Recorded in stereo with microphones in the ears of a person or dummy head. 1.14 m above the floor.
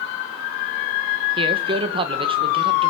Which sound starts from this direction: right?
A man speaking, at 1.4 s.